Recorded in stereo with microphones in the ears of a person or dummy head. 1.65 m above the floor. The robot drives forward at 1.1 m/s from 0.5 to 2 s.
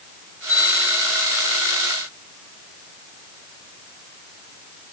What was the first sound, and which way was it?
A bell, 40° right (ahead or behind).